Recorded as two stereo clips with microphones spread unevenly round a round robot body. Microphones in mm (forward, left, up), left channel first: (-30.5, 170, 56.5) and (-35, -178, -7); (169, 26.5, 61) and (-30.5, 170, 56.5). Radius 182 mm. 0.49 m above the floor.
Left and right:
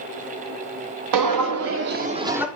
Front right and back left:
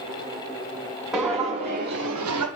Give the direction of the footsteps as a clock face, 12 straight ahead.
4 o'clock.